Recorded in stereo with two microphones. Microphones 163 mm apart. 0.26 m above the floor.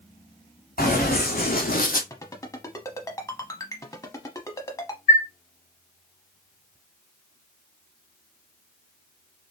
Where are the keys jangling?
I don't hear keys jangling.